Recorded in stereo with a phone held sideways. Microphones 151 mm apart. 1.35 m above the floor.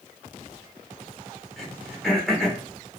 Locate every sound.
1.6 s throat clearing: 5° left (ahead or behind), 1.1 m